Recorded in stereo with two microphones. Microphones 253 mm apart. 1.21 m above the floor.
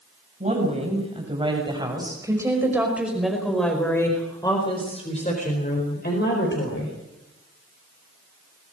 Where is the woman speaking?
30° right (ahead or behind), 7 m; by 7.0 s 50° left (ahead or behind), 5 m.